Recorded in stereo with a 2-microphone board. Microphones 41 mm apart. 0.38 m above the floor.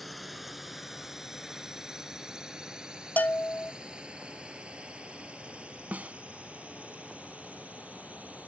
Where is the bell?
50° left (ahead or behind).